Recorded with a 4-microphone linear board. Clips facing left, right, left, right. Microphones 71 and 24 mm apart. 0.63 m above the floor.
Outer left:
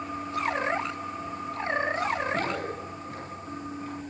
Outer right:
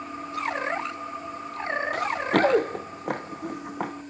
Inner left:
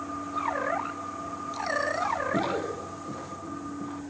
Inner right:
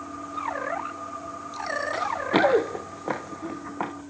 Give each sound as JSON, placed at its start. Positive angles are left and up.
{"t": 1.9, "sound": "running footsteps", "side_deg": -80, "distance_m": 4.0}